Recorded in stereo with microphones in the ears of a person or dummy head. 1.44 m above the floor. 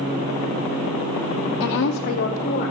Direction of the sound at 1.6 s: 60° left (ahead or behind).